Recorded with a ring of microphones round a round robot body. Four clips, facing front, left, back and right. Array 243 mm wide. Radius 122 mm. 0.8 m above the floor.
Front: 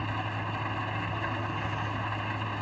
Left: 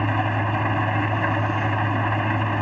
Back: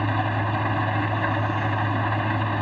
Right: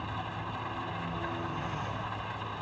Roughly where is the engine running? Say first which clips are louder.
Left 14 dB, back 9 dB; behind left.